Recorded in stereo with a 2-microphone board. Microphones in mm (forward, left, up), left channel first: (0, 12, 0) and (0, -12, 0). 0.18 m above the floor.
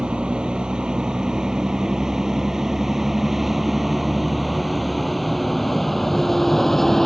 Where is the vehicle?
40° right (ahead or behind); by 7.1 s 15° left (ahead or behind).